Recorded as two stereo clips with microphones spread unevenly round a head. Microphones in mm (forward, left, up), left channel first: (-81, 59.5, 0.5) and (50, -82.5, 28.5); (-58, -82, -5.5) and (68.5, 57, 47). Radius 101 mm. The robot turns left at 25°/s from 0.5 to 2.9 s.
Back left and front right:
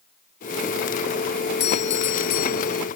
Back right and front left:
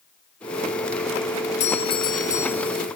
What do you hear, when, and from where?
1.6 s a doorbell: 170° left; by 2.9 s 140° left